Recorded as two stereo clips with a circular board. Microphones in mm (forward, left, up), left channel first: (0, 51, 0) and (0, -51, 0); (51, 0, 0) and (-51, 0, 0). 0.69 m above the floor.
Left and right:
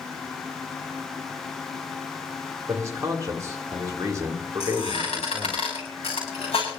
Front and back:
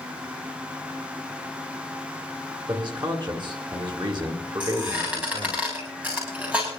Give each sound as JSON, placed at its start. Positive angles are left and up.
{"t": 2.7, "sound": "a man speaking", "azimuth_deg": -145, "distance_m": 2.5}
{"t": 4.6, "sound": "a squeak", "azimuth_deg": 105, "distance_m": 8.5}